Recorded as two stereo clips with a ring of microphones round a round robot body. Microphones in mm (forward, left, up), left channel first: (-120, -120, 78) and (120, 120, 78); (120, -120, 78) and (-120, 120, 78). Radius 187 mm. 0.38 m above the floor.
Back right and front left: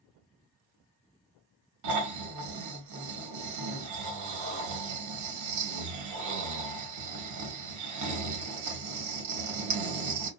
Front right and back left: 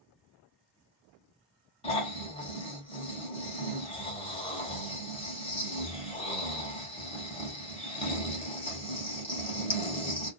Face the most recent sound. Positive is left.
turn(degrees=25)